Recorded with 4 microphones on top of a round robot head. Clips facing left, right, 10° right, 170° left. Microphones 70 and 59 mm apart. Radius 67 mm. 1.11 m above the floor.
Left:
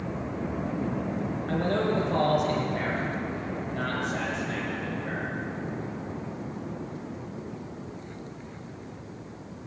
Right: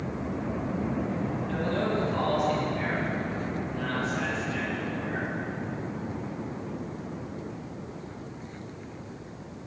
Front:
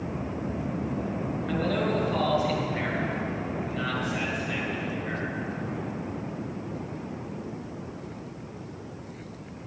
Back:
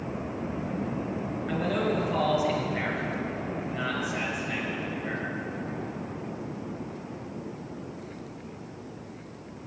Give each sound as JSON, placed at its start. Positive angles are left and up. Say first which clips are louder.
{"t": 1.5, "sound": "a man speaking", "louder": "left 3 dB, even", "azimuth_deg": 95, "distance_m": 6.0}